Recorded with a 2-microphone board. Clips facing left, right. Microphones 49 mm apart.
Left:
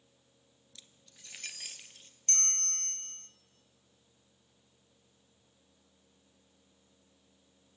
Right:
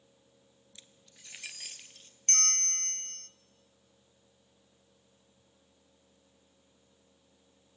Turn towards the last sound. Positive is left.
turn(degrees=-45)  # may be behind; listen again after turning